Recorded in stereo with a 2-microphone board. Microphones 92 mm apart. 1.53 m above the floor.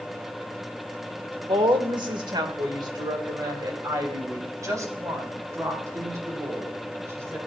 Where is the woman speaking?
65° right (ahead or behind), 1.2 m; by 7.4 s 30° right (ahead or behind), 4.5 m.